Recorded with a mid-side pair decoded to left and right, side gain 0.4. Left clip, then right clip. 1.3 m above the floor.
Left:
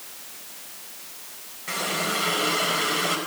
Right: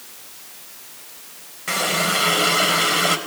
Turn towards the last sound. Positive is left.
turn(degrees=-55)